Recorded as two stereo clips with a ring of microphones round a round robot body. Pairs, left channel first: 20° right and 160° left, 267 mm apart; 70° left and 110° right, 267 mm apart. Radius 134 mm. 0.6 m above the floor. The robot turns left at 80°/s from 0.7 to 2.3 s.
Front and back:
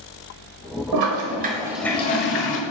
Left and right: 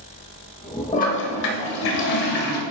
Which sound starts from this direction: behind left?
A toilet flushing, at 0.9 s.